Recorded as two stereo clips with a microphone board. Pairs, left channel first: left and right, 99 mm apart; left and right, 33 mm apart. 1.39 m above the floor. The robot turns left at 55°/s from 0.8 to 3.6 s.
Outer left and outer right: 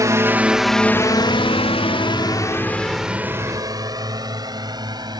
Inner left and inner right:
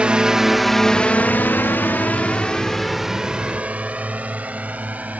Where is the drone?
35° right (ahead or behind); by 5.2 s 45° right (ahead or behind).